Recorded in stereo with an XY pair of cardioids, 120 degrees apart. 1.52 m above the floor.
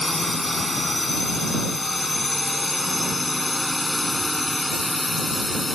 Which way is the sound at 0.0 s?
10° left.